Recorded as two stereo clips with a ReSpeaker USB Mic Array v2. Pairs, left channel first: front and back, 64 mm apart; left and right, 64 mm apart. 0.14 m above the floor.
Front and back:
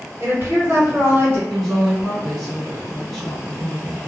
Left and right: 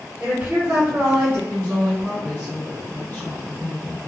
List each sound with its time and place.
0.2 s a woman speaking: 135° right, 1.8 m
1.5 s a woman speaking: 95° left, 1.1 m